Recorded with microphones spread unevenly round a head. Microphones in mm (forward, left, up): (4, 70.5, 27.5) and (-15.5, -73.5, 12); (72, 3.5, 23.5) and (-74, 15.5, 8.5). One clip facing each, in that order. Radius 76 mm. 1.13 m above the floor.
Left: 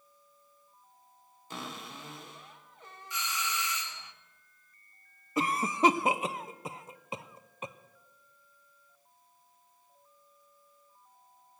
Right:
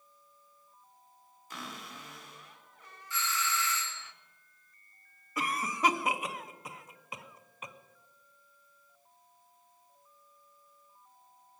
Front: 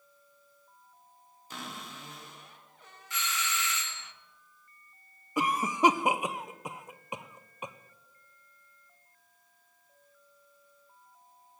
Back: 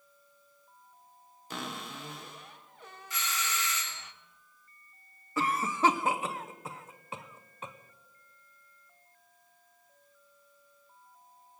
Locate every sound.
1.5 s a cupboard door: 145° left, 1.5 m
3.1 s a doorbell: 155° left, 0.6 m
5.4 s a cough: 60° left, 0.6 m